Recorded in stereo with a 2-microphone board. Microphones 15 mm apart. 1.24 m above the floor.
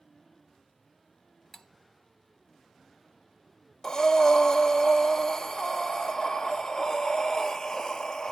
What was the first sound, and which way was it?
Cutlery clinking, 25° left (ahead or behind).